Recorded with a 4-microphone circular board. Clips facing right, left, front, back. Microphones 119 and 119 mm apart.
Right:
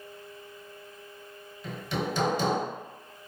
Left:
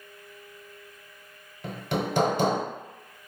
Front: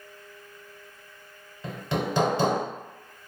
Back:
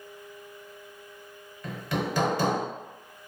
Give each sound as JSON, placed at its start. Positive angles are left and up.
{"t": 1.6, "sound": "hammering", "azimuth_deg": 60, "distance_m": 0.7}